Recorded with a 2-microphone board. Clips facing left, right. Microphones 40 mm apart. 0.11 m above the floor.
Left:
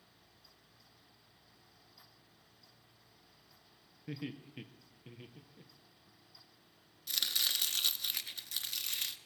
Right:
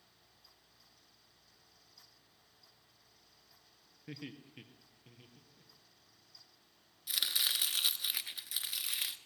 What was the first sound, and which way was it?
Laughter, centre (ahead or behind).